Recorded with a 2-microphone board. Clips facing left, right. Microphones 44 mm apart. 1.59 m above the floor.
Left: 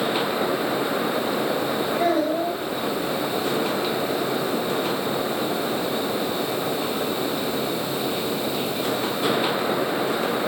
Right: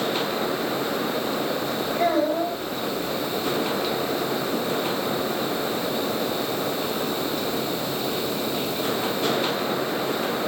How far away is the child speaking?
About 5 m.